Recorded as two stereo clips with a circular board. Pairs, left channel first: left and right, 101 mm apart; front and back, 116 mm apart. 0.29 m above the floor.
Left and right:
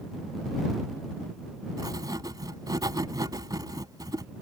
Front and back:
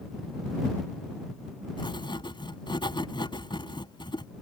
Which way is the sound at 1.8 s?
45° right.